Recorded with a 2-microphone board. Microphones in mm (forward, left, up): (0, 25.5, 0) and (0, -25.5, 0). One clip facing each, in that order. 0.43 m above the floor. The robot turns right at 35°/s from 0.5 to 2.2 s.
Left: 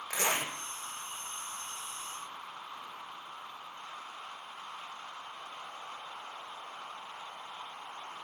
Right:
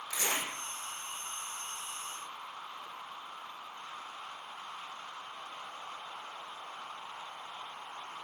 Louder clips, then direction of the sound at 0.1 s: Left 3 dB; 55° left (ahead or behind).